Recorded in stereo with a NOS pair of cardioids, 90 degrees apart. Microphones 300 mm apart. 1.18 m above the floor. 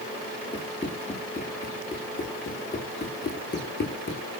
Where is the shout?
I don't hear a shout.